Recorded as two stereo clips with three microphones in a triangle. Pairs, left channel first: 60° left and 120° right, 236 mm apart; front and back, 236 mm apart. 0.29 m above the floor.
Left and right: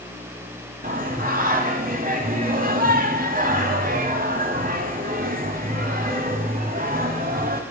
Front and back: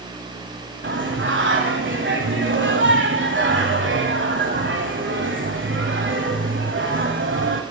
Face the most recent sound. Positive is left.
turn(degrees=-165)